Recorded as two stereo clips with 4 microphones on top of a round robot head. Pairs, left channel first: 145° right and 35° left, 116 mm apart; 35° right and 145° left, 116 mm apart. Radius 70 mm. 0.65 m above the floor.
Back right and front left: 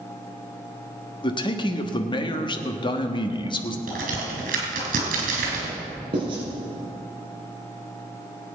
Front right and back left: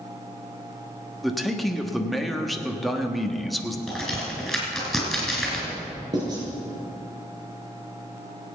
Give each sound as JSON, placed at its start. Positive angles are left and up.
{"t": 1.2, "sound": "a man speaking", "azimuth_deg": -125, "distance_m": 1.3}
{"t": 3.9, "sound": "a crack", "azimuth_deg": 55, "distance_m": 4.5}
{"t": 6.1, "sound": "writing", "azimuth_deg": 85, "distance_m": 4.5}